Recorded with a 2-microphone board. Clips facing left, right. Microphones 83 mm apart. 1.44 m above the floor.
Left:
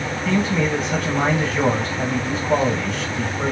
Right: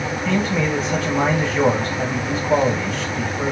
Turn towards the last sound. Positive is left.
turn(degrees=0)  # may be behind; listen again after turning